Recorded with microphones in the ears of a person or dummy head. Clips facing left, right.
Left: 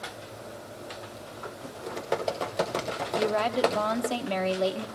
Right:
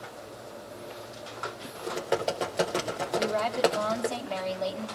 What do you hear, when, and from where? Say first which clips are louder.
1.8 s typing on a keyboard: right 2 dB; 5° right (ahead or behind), 0.7 m
3.2 s a woman speaking: left 1 dB; 40° left (ahead or behind), 1.1 m